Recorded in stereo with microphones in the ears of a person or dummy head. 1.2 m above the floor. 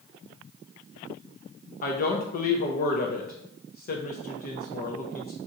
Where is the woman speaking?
40° left (ahead or behind), 0.5 m.